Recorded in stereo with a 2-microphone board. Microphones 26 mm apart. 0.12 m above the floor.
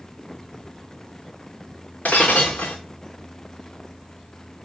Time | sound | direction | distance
2.0 | breaking glass | 85° left | 2 m